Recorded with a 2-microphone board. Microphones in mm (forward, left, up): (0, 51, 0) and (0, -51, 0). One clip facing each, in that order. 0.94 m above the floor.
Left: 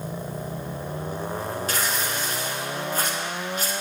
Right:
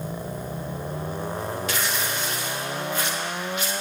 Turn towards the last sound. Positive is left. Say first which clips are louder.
# even
turn(degrees=40)  # may be behind; listen again after turning